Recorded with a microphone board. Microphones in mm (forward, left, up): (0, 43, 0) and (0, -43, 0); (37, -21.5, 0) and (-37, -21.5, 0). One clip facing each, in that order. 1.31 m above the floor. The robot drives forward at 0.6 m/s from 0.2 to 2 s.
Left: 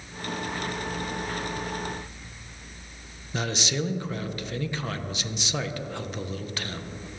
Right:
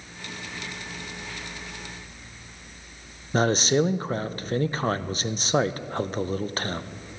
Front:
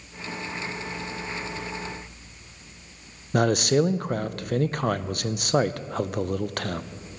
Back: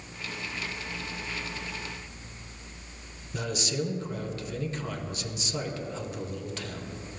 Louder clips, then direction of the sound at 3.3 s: Right 8 dB, front 11 dB; 35° right.